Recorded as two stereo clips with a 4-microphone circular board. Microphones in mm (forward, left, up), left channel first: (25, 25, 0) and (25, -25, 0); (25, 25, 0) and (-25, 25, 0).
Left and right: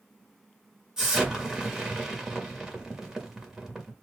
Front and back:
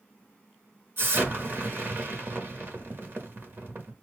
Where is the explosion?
165° right, 1.8 m.